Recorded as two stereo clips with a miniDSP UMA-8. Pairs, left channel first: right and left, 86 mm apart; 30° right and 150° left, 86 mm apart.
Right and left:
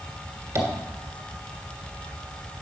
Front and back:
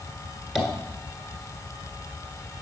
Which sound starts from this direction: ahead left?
Tapping, at 0.6 s.